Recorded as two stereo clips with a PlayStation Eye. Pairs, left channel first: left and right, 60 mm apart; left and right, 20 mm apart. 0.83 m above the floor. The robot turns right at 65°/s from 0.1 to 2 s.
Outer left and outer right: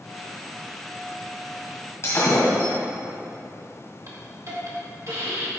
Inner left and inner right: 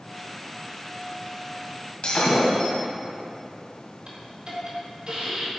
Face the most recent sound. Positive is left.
turn(degrees=-55)  # may be behind; listen again after turning